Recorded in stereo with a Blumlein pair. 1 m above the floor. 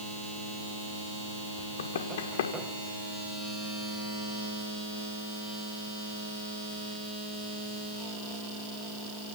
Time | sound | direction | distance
1.6 | running footsteps | 60° left | 6.5 m